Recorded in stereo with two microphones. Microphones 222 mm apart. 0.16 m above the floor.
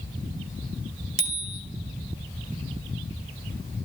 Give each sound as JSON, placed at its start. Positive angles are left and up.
{"t": 1.2, "sound": "a bicycle bell", "side_deg": -65, "distance_m": 2.5}